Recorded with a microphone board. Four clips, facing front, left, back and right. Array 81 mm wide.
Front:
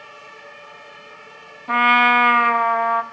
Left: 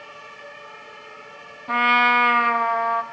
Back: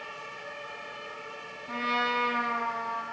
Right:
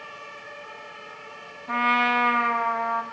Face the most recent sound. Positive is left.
turn(degrees=15)